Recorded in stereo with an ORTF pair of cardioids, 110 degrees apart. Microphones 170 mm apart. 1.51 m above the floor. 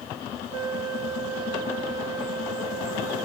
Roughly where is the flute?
Ahead right.